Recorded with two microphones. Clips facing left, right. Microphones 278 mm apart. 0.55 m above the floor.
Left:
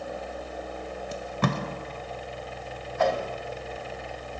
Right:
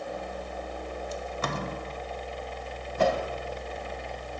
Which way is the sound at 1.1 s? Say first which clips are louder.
Left 7 dB; 65° left (ahead or behind).